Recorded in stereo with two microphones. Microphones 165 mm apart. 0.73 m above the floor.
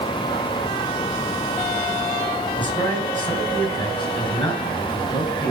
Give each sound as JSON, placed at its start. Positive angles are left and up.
{"t": 2.6, "sound": "a man speaking", "side_deg": 30, "distance_m": 8.5}